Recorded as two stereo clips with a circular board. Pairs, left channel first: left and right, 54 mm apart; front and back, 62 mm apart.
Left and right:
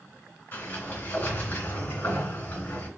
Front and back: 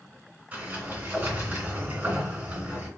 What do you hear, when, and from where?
0.5 s a sliding door: 120° left, 2.5 m